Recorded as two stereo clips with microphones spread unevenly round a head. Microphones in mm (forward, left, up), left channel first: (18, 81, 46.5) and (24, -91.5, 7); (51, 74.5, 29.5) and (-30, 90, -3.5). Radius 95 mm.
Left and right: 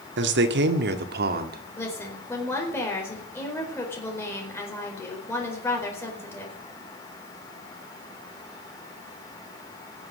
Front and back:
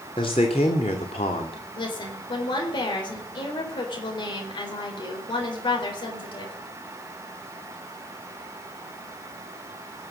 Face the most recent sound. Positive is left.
turn(degrees=15)